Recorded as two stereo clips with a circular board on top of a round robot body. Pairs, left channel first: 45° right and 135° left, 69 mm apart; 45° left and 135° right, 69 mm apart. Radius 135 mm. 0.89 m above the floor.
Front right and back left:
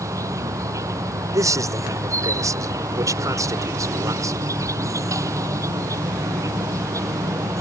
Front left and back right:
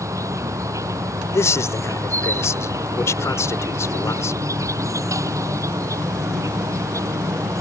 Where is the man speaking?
95° left.